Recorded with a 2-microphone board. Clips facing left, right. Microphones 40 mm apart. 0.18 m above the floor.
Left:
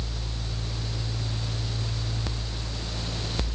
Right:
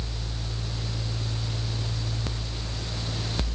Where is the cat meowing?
I don't hear a cat meowing.